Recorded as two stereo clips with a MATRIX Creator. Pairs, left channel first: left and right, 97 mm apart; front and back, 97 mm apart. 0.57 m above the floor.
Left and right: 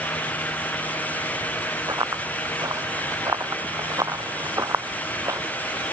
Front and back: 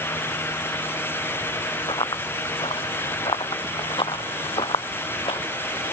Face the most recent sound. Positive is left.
turn(degrees=-30)